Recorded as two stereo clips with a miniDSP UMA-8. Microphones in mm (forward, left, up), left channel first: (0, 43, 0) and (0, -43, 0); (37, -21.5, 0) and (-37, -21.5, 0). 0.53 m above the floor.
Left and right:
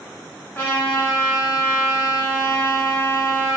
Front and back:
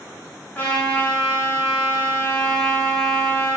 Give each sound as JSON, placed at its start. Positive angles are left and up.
{"t": 0.6, "sound": "a trumpet", "azimuth_deg": 40, "distance_m": 0.9}